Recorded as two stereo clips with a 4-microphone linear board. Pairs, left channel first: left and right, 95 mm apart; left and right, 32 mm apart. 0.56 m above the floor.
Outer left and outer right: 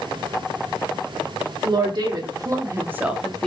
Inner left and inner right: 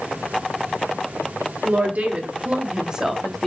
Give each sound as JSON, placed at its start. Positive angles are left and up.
{"t": 1.6, "sound": "a woman speaking", "side_deg": -55, "distance_m": 1.5}